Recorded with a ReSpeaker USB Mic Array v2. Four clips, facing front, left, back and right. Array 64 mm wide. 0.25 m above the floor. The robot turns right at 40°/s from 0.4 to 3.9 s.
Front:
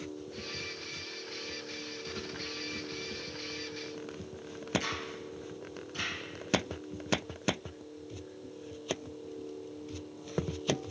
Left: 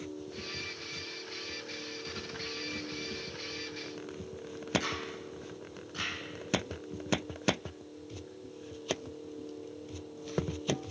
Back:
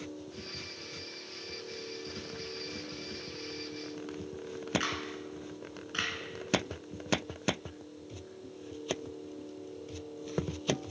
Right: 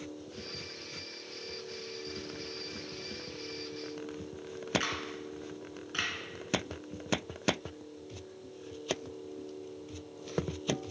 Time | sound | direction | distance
4.8 | a camera shutter | 140° right | 2.5 m